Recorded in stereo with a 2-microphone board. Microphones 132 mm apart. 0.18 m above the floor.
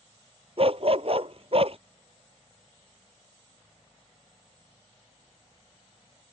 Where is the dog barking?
50° right (ahead or behind).